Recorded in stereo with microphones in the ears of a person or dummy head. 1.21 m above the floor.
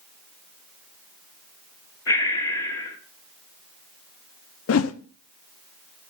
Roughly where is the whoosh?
Left.